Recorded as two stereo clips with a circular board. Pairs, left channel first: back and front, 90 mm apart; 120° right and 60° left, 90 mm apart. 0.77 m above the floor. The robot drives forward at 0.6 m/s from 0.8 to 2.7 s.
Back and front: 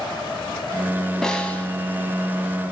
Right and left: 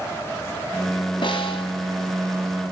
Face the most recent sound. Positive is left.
turn(degrees=-125)